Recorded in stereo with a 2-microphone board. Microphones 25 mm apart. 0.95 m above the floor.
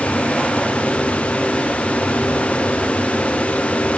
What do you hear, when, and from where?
Only background noise.